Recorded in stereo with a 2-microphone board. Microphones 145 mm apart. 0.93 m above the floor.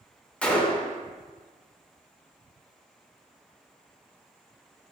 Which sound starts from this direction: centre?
A gunshot, at 0.4 s.